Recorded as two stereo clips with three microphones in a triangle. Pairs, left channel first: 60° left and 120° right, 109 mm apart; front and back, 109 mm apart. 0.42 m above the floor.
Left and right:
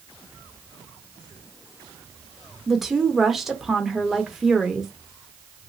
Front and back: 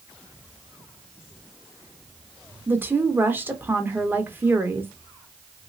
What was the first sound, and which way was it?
A woman speaking, 160° left.